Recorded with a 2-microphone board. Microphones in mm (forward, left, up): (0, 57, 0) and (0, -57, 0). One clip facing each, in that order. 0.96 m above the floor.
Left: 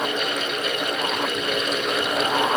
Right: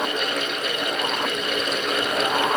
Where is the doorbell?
No doorbell in this recording.